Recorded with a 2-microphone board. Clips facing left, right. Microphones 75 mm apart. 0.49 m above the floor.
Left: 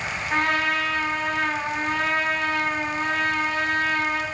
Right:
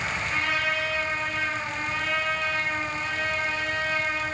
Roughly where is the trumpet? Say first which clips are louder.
Left 6 dB; left.